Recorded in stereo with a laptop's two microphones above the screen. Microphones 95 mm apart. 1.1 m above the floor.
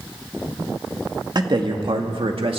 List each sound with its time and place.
1.4 s a man speaking: 45° right (ahead or behind), 1.6 m; by 2.6 s 75° right (ahead or behind), 2.0 m